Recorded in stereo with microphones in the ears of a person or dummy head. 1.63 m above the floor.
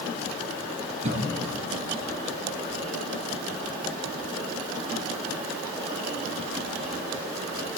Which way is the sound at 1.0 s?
40° right (ahead or behind).